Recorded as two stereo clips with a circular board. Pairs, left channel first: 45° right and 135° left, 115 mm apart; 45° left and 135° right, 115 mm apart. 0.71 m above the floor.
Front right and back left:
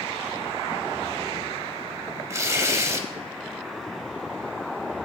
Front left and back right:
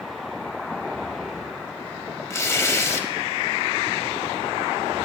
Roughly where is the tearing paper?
Left.